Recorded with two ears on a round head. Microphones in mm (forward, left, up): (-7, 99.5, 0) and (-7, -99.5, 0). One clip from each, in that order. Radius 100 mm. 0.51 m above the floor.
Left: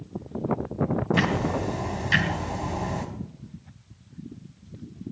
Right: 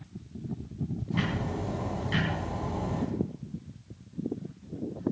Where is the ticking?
65° left (ahead or behind), 2.5 m.